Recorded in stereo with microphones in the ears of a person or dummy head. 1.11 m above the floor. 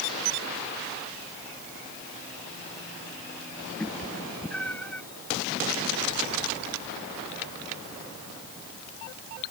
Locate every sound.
3.8 s a cat meowing: 10° left (ahead or behind)